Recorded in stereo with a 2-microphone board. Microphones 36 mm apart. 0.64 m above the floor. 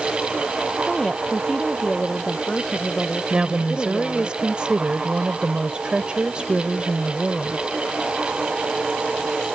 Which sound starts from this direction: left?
A woman speaking, at 0.8 s.